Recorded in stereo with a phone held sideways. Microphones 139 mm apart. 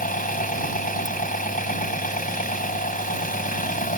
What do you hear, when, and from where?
0.0 s an engine running: 80° left